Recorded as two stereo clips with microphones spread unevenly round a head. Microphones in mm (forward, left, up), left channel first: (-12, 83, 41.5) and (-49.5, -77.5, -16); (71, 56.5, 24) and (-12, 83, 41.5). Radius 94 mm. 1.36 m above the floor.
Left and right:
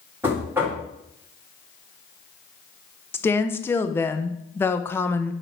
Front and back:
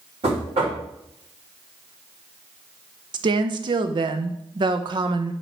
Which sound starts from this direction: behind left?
A woman speaking, at 3.1 s.